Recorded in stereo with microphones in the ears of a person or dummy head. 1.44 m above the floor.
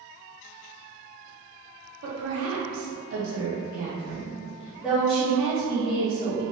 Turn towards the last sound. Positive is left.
turn(degrees=20)  # may be behind; listen again after turning